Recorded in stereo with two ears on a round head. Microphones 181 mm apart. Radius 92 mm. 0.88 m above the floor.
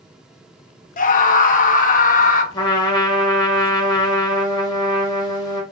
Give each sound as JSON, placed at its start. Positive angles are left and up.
{"t": 1.0, "sound": "a scream", "side_deg": 40, "distance_m": 0.6}
{"t": 2.5, "sound": "a trumpet", "side_deg": 20, "distance_m": 0.8}